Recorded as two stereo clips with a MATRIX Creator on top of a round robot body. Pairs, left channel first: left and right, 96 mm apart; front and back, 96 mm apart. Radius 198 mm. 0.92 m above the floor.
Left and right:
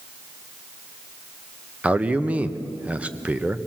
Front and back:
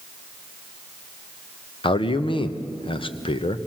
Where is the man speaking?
15° right, 1.3 m.